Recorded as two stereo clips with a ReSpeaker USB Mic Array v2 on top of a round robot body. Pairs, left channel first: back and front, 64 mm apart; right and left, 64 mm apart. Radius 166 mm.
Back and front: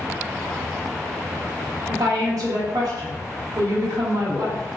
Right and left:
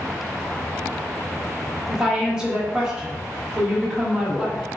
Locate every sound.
1.9 s a woman speaking: 10° left, 1.0 m